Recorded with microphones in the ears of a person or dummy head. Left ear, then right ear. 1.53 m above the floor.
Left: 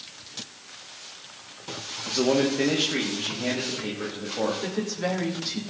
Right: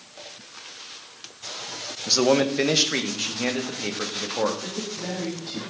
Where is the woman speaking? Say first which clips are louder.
Left 3 dB; 80° left, 3 m.